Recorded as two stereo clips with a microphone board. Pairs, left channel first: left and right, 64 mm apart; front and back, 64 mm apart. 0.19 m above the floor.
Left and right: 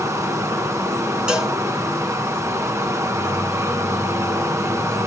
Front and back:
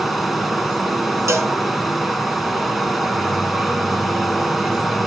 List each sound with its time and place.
0.0 s running water: 90° right, 1.0 m
1.3 s a cowbell: 165° right, 1.5 m